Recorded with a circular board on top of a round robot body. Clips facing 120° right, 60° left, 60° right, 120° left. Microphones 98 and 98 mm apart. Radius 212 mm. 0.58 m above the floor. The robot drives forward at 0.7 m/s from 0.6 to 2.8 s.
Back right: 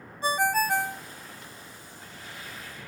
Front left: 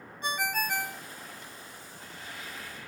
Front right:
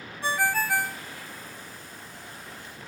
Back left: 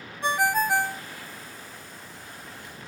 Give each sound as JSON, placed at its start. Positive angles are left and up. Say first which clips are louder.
{"t": 0.2, "sound": "a ringtone", "louder": "back right 7 dB, back left 3 dB", "azimuth_deg": -170, "distance_m": 0.7}